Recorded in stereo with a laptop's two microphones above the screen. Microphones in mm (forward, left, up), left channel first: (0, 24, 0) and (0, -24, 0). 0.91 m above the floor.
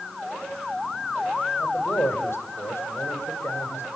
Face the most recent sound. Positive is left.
turn(degrees=60)  # may be behind; listen again after turning